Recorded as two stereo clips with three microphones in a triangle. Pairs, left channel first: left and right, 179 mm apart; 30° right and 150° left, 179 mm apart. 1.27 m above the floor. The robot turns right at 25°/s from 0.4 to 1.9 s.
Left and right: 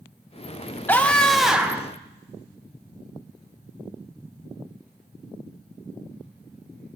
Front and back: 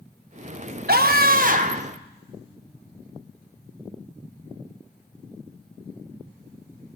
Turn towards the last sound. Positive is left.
turn(degrees=-165)